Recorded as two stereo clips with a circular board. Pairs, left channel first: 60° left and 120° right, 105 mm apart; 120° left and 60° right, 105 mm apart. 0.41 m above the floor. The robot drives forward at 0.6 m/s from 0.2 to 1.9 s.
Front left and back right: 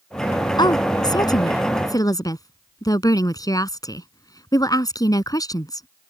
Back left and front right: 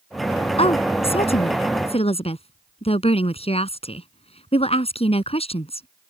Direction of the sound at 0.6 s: 105° left.